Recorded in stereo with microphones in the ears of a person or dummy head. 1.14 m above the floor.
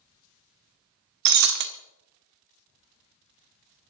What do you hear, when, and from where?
1.2 s breaking glass: 55° right (ahead or behind), 1.5 m